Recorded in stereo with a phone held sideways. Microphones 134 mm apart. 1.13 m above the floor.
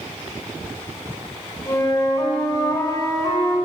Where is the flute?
25° left (ahead or behind), 4 m.